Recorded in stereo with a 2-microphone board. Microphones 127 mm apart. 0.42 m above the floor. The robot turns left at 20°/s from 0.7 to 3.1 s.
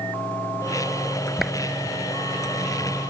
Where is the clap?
Centre (ahead or behind).